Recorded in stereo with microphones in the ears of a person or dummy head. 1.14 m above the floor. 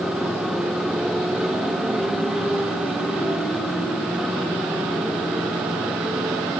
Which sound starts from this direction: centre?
A motorcycle, at 0.0 s.